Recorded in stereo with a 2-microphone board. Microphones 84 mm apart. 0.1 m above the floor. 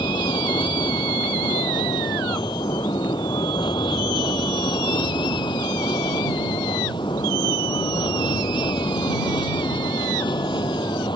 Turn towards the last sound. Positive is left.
turn(degrees=65)  # may be behind; listen again after turning